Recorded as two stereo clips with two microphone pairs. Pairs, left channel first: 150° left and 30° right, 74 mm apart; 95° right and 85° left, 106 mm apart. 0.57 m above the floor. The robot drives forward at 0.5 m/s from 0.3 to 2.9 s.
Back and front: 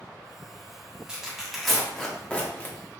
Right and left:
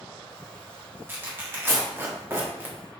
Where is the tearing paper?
35° left, 1.1 m; by 2.8 s 125° left, 1.0 m.